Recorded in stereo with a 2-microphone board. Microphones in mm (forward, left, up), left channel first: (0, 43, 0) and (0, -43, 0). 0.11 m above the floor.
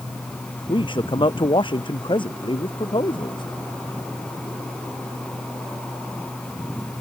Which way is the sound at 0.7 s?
70° left (ahead or behind).